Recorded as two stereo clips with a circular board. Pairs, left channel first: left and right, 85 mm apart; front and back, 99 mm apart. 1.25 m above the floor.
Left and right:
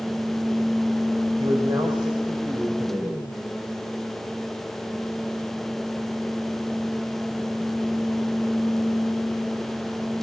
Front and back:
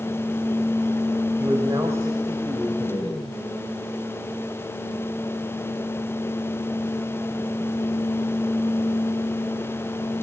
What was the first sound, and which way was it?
A man speaking, 115° right.